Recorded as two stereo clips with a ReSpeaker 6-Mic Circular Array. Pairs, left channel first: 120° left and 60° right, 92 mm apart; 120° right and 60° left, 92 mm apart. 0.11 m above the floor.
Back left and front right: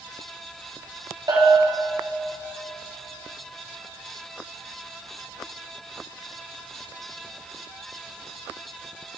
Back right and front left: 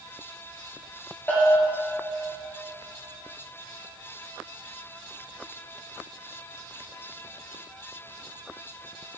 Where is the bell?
60° right, 2.5 m.